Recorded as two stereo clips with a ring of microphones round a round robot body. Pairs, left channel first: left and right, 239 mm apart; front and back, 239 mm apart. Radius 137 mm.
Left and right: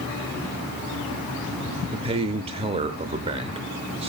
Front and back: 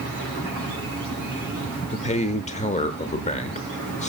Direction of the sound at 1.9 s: 40° right.